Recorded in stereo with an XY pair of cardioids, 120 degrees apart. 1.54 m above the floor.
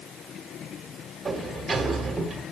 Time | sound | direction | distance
1.2 | a sliding door | 25° right | 1.1 m